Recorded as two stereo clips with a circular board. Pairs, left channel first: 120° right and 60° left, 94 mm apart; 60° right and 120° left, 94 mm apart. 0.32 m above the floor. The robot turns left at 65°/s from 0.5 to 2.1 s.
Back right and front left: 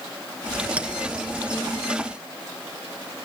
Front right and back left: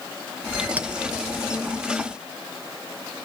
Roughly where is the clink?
Left.